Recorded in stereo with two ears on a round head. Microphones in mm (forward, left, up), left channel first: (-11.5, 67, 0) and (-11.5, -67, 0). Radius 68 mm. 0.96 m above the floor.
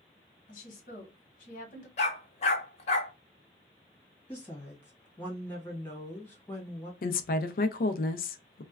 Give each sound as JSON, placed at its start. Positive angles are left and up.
{"t": 0.5, "sound": "a woman speaking", "side_deg": 55, "distance_m": 1.3}
{"t": 2.0, "sound": "a dog barking", "side_deg": 45, "distance_m": 0.9}
{"t": 4.3, "sound": "a woman speaking", "side_deg": 10, "distance_m": 1.5}
{"t": 7.0, "sound": "a woman speaking", "side_deg": 60, "distance_m": 0.5}